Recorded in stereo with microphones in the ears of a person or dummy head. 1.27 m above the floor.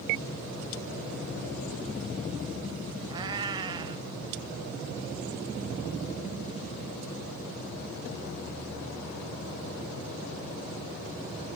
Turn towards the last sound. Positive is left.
turn(degrees=-20)  # may be behind; listen again after turning